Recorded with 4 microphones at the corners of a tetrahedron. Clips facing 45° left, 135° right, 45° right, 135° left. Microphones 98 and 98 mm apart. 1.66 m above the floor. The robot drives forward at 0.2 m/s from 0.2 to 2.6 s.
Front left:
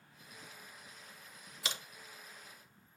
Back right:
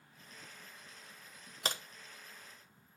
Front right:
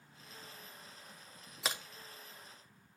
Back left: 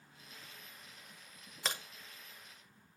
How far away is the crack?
About 0.9 m.